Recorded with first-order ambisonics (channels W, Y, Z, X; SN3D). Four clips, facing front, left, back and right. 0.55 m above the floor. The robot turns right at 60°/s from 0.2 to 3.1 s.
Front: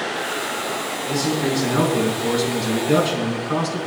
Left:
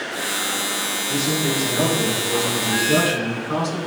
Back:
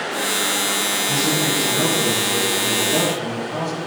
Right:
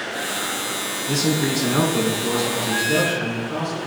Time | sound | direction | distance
1.1 | a man speaking | 90° right | 5 m